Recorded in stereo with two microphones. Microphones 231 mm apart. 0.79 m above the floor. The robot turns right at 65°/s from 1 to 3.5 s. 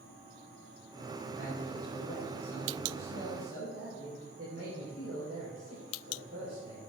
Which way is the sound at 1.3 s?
115° left.